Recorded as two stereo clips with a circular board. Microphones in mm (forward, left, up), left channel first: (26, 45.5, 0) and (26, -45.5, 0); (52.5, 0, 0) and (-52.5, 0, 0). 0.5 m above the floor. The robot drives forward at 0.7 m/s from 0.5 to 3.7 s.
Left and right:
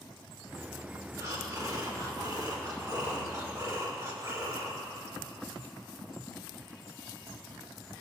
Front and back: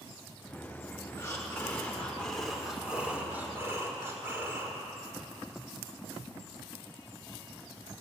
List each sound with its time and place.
1.2 s breathing: 50° right, 2.0 m; by 4.8 s 125° right, 1.9 m